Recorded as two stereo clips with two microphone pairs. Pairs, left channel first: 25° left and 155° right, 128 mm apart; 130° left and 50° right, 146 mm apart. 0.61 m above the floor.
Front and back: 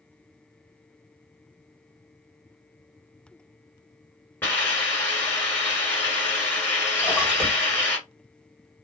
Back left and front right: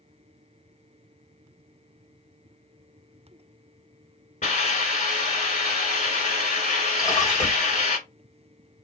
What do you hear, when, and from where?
4.4 s a hiss: 100° left, 1.2 m
7.0 s a splash: 145° left, 1.2 m